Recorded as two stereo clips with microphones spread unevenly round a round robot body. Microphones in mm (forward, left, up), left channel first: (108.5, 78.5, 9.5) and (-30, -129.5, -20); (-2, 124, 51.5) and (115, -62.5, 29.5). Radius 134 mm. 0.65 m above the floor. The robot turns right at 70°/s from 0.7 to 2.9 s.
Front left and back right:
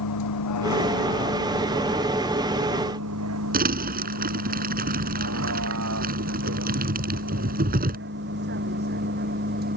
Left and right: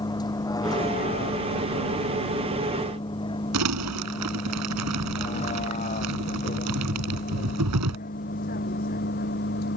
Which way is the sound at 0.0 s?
50° left.